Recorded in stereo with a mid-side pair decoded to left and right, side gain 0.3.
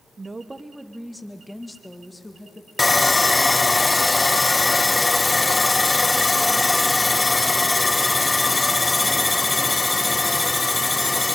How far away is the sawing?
About 0.7 m.